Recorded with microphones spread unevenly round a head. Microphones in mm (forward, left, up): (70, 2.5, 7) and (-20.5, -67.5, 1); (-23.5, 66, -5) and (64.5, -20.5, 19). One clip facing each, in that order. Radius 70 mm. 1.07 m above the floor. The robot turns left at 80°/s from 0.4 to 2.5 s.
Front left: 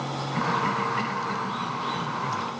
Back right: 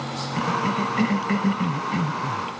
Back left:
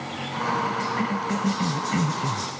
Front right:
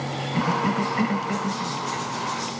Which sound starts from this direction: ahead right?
A cough, at 0.3 s.